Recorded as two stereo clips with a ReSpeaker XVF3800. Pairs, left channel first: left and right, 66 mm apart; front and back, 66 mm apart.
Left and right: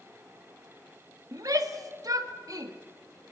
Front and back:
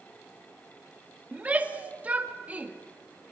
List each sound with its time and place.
1.3 s a shout: 110° right, 1.7 m